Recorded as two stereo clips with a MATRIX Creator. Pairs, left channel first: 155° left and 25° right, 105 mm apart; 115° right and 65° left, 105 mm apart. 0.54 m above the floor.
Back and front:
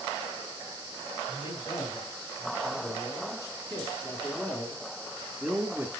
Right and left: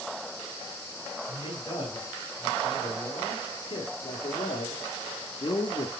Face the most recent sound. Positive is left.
turn(degrees=-80)